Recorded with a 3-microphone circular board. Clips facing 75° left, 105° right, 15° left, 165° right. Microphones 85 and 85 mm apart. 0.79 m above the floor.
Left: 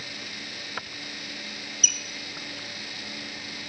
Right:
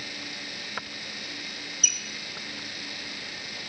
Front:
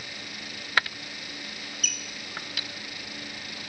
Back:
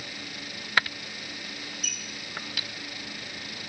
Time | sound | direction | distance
1.8 | a squeak | 30° left | 1.4 m